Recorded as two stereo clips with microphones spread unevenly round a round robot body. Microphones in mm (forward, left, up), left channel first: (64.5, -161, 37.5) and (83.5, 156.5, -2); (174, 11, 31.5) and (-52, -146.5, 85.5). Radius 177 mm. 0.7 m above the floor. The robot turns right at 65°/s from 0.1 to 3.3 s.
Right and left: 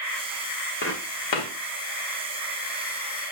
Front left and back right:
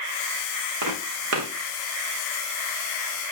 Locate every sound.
0.8 s footsteps: 155° right, 2.5 m; by 1.5 s 110° right, 2.5 m